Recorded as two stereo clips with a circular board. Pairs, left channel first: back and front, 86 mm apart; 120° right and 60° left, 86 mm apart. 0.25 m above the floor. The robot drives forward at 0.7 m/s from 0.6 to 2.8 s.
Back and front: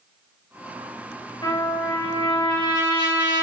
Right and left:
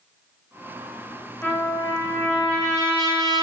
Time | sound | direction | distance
1.4 | a trumpet | 175° right | 1.9 m